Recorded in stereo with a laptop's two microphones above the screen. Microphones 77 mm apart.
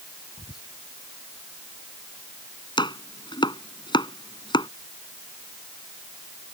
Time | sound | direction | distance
0.4 | whispering | 60° left (ahead or behind) | ?
2.8 | chopping | 85° left | ?